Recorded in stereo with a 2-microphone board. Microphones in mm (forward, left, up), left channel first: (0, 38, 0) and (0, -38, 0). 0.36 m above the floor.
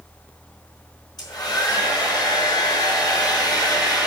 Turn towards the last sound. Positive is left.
turn(degrees=75)  # may be behind; listen again after turning